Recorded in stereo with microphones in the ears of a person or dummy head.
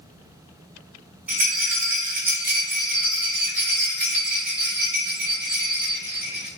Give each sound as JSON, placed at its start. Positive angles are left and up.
{"t": 1.3, "sound": "a rattle", "side_deg": -5, "distance_m": 1.0}